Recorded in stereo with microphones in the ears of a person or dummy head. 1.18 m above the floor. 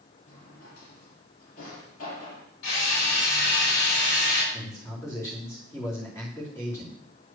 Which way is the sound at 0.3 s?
80° left.